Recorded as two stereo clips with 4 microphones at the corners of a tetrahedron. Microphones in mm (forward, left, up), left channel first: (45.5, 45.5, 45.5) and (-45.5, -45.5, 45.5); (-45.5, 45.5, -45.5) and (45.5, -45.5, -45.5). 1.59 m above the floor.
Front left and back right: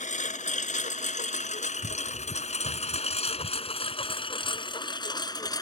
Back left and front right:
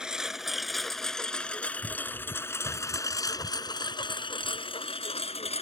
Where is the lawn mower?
40° left; by 5.6 s 105° left.